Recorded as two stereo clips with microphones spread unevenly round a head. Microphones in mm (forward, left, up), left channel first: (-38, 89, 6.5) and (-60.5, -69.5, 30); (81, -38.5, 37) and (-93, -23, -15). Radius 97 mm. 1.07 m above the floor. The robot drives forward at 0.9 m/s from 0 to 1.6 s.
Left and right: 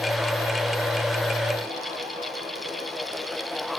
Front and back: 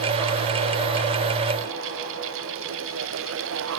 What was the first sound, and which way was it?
Only background noise.